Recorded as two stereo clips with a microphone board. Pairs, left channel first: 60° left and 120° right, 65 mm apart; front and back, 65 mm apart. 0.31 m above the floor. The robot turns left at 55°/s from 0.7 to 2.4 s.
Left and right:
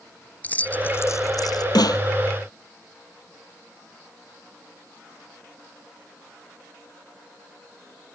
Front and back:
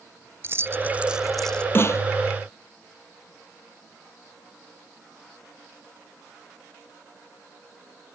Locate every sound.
0.4 s keys jangling: 130° left; by 1.6 s 75° left
1.8 s a snare drum: 55° left; by 2.0 s 40° left